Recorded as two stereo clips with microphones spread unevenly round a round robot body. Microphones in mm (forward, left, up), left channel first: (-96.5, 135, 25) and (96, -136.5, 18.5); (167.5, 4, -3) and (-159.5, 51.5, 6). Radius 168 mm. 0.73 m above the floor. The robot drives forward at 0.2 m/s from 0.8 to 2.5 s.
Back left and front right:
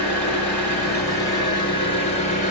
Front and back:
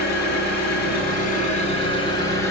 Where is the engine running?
40° left, 1.0 m; by 2.5 s 70° left, 0.8 m.